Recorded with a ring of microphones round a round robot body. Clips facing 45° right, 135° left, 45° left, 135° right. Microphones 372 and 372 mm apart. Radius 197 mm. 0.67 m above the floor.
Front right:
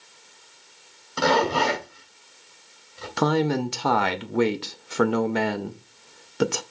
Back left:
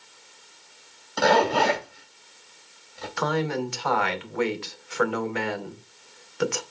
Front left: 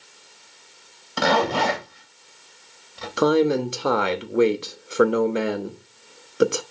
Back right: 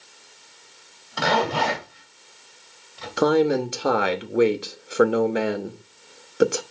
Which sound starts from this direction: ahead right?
A man speaking, at 3.2 s.